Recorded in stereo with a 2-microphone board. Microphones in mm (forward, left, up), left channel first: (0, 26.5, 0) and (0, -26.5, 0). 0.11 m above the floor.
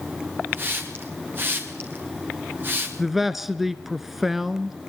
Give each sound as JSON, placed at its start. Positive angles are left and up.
{"t": 0.5, "sound": "a hiss", "side_deg": -40, "distance_m": 4.0}
{"t": 3.0, "sound": "a man speaking", "side_deg": -5, "distance_m": 1.1}